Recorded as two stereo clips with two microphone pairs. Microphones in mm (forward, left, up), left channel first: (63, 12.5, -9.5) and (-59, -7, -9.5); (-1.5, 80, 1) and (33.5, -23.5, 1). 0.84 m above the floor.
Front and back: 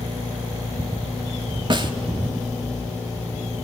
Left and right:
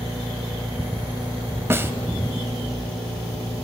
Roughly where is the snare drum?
Behind right.